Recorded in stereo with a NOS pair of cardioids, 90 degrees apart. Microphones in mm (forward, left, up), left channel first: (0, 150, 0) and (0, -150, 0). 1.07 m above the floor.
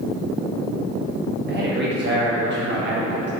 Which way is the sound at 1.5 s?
35° right.